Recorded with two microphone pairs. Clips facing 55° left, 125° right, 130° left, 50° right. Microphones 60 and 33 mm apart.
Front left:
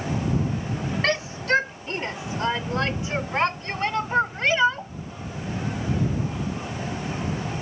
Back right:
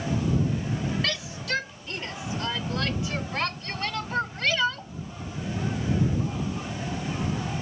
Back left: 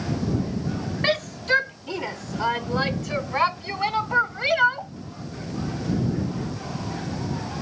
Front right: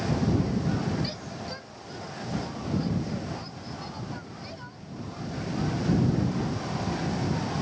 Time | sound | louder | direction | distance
1.0 | a shout | front left 7 dB, back left 13 dB | 110° left | ?